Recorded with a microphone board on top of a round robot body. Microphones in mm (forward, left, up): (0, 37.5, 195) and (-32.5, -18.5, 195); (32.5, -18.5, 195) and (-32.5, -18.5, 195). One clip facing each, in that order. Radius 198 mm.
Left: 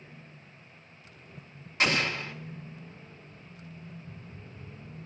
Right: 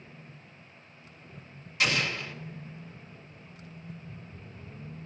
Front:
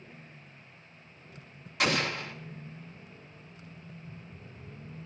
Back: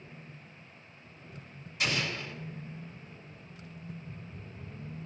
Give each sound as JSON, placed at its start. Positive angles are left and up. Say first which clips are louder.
{"t": 1.8, "sound": "an explosion", "louder": "left 1 dB, front 4 dB", "azimuth_deg": 10, "distance_m": 1.9}